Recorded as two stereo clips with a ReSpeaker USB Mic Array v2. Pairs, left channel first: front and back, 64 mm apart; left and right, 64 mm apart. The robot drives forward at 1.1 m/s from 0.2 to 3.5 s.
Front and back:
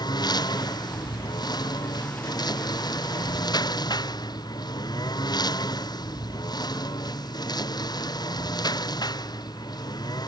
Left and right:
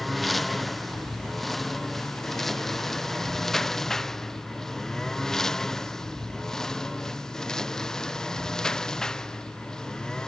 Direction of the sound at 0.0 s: Straight ahead.